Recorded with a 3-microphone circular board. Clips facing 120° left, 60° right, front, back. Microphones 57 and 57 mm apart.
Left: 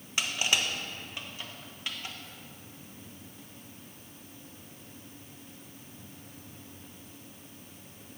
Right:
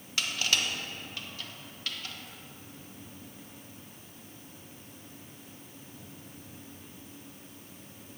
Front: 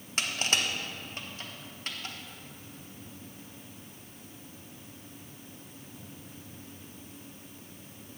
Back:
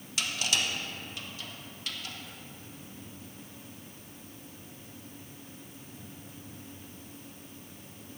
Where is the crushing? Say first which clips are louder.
Left 1 dB, front 1 dB; 50° left, 1.1 m.